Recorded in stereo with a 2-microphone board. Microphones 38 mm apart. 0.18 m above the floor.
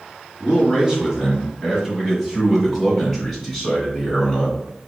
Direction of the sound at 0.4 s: 15° right (ahead or behind).